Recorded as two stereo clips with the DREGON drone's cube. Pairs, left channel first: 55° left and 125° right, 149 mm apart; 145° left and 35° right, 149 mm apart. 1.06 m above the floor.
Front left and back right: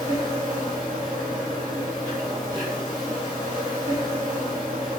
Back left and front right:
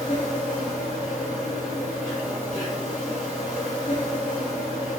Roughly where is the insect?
Behind left.